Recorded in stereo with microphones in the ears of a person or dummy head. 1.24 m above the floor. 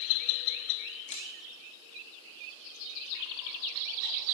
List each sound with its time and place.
1.1 s a camera shutter: 35° left (ahead or behind), 1.9 m